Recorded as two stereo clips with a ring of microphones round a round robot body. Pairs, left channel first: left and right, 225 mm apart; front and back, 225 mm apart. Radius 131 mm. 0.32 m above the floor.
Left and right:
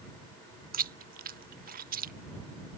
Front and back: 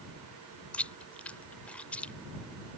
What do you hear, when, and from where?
0.7 s chewing: 80° right